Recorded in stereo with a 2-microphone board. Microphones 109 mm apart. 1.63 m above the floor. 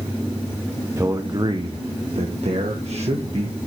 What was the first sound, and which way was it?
A man speaking, 25° right (ahead or behind).